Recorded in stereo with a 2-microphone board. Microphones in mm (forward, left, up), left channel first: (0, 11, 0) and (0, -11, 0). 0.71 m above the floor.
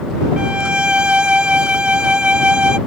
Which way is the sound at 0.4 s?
55° right (ahead or behind).